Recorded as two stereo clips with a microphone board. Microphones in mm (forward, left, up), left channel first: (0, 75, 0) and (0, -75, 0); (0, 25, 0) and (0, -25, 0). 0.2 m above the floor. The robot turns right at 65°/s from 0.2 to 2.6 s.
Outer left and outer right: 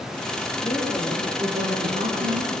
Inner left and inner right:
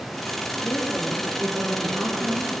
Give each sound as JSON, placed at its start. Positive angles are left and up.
{"t": 0.6, "sound": "a woman speaking", "azimuth_deg": 155, "distance_m": 6.0}